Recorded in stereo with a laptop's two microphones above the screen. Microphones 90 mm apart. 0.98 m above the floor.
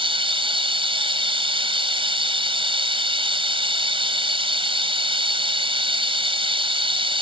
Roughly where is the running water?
Right.